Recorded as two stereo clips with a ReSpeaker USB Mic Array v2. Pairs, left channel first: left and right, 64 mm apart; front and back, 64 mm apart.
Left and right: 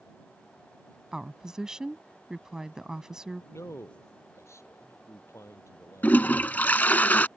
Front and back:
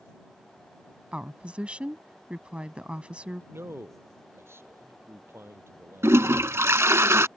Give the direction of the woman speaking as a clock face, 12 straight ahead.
5 o'clock.